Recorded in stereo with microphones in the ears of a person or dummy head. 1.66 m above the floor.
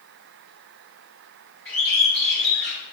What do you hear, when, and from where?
1.6 s a bird: 15° left (ahead or behind), 1.8 m